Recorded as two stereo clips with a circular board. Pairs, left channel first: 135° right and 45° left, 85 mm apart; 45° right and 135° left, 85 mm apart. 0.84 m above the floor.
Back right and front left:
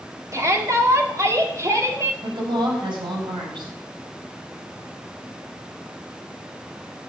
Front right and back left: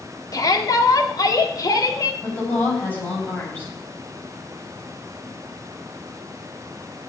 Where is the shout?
5° right, 2.5 m.